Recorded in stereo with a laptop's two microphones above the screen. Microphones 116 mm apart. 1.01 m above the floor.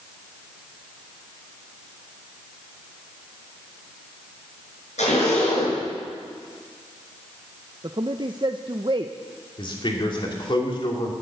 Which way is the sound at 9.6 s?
45° left (ahead or behind).